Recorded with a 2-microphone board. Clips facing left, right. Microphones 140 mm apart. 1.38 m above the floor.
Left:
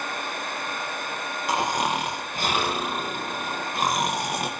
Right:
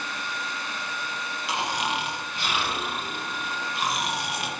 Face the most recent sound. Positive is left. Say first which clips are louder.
# left 4 dB
turn(degrees=45)  # may be behind; listen again after turning